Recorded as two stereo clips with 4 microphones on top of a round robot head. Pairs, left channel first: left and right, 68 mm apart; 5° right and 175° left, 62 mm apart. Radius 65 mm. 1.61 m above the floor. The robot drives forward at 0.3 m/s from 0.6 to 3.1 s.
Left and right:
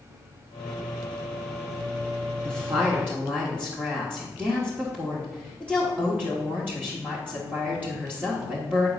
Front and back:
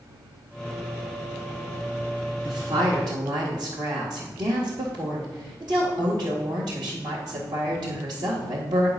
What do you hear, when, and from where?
2.4 s a woman speaking: 155° right, 1.4 m